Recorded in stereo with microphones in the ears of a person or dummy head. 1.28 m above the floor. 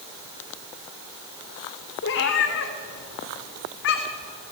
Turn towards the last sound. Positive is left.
turn(degrees=65)  # may be behind; listen again after turning